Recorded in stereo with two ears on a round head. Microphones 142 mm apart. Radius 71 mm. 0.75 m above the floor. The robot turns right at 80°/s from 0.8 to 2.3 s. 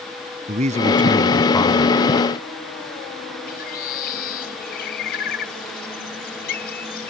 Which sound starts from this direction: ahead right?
A man speaking, at 0.5 s.